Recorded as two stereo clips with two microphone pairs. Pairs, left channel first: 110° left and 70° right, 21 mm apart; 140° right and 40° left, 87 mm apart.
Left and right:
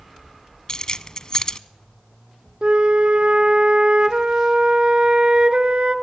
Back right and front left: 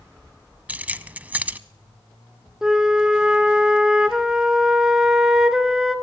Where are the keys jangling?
100° left, 0.9 m.